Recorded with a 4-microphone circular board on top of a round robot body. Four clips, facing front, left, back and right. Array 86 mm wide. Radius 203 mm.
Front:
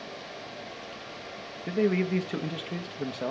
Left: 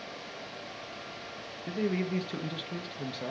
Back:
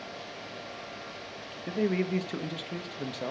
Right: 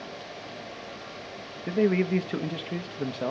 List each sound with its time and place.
1.7 s a man speaking: 70° right, 0.9 m